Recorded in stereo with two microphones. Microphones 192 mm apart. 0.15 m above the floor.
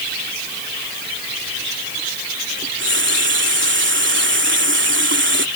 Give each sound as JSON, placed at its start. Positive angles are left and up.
{"t": 2.6, "sound": "a running tap", "side_deg": -80}